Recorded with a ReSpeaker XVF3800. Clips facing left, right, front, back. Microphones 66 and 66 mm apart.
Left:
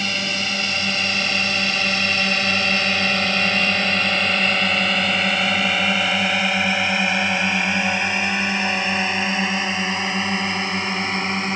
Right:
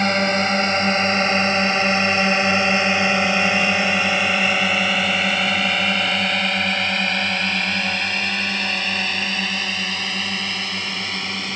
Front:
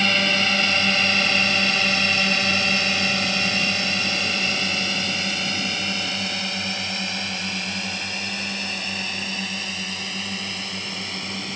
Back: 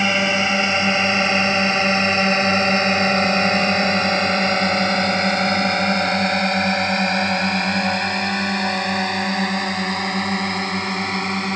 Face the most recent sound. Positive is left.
turn(degrees=150)